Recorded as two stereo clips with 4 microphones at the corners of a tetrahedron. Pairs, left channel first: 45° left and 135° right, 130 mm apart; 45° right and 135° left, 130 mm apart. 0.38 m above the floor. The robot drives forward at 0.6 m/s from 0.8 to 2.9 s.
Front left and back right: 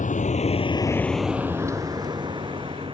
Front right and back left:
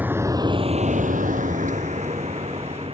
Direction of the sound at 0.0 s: 60° left.